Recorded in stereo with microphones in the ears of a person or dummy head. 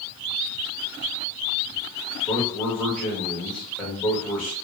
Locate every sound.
2.2 s a man speaking: 5° left (ahead or behind), 1.5 m